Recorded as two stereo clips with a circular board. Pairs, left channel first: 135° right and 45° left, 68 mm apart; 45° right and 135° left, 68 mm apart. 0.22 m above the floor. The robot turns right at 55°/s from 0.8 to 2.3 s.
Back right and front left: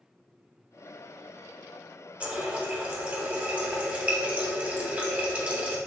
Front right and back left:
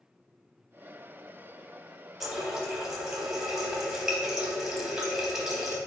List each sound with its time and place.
2.2 s a running tap: 55° left, 0.7 m; by 5.8 s 60° left, 0.7 m